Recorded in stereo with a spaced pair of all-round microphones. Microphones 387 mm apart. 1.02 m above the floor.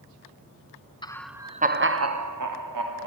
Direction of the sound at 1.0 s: 15° left (ahead or behind).